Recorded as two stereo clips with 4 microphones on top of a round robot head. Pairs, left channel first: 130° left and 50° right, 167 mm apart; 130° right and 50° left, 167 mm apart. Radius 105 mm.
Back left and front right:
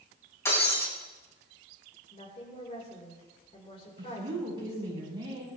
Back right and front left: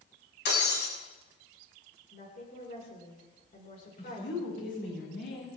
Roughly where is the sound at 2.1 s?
Behind.